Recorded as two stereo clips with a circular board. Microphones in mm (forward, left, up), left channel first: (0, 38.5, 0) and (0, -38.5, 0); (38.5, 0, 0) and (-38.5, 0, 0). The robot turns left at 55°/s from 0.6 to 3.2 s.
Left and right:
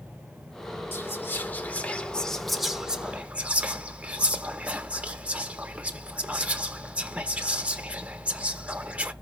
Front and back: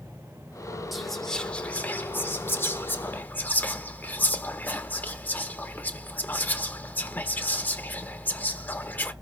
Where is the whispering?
90° left, 1.0 m; by 9.1 s 35° right, 1.0 m.